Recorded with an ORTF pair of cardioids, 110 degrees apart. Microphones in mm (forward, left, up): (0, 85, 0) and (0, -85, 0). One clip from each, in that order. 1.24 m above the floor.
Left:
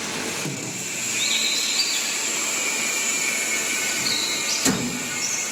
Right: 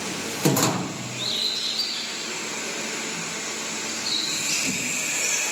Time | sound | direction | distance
1.1 | a bird | 25° left | 6.5 m